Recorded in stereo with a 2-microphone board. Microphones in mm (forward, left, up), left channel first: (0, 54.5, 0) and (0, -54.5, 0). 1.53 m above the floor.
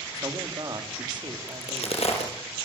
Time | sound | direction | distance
0.1 | a man speaking | 40° right (ahead or behind) | 3 m
1.5 | a crack | 75° left (ahead or behind) | 6 m